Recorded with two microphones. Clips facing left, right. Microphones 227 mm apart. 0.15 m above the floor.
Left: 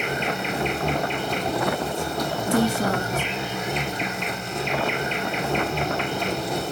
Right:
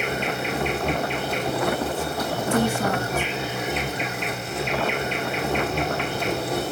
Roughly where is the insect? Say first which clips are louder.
Right 1 dB; centre.